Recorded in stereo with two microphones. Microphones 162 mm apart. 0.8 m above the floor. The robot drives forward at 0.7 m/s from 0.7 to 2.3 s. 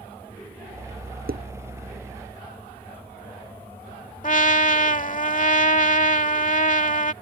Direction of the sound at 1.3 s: 65° right (ahead or behind).